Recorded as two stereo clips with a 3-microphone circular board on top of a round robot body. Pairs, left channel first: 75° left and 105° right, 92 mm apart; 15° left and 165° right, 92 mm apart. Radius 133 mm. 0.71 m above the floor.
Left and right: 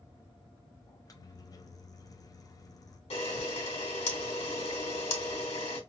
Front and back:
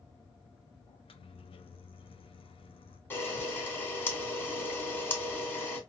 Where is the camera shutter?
85° left, 2.5 m.